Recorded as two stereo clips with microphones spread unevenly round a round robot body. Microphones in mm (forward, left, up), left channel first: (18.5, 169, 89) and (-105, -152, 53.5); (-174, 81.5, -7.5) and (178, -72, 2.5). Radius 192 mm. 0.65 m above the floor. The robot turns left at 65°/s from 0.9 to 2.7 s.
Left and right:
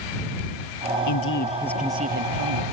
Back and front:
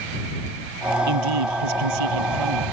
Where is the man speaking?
25° left; by 2.6 s 75° right.